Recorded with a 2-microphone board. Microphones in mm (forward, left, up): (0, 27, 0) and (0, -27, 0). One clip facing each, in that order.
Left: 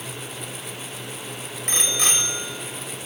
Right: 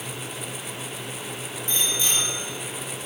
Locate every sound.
1.7 s a bicycle bell: 75° left (ahead or behind), 5 m